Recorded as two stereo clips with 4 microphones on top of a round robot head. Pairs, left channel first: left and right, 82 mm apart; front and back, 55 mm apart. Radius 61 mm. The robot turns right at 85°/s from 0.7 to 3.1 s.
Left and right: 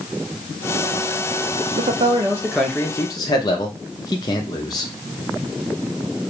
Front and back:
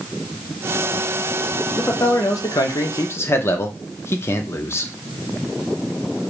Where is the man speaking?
75° right, 0.6 m; by 4.9 s 40° left, 0.6 m.